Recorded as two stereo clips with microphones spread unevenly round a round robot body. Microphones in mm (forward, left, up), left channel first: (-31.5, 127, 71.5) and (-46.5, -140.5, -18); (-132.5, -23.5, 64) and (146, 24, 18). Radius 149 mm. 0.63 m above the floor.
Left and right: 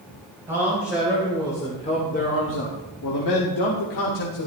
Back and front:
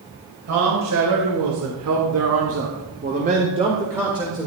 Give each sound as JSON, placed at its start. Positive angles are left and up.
{"t": 0.5, "sound": "a man speaking", "azimuth_deg": -15, "distance_m": 3.5}